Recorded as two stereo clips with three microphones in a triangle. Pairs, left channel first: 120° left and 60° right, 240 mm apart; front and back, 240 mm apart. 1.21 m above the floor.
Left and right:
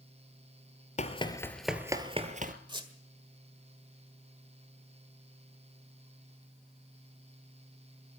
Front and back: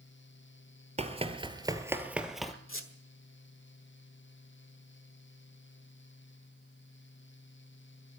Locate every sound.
1.0 s running footsteps: 150° left, 1.3 m; by 2.5 s 90° right, 1.5 m
2.7 s a squeak: 5° left, 1.5 m